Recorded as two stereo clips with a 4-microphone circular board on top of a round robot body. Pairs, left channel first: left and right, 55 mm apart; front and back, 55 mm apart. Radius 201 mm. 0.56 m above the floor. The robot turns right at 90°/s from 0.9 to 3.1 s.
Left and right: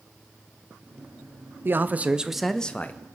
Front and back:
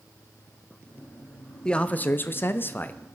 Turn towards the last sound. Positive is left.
turn(degrees=60)